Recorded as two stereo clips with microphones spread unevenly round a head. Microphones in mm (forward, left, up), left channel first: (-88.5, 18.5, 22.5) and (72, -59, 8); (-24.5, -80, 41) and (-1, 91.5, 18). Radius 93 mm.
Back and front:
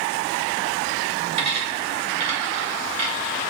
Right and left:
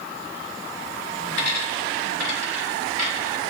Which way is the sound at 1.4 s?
80° right.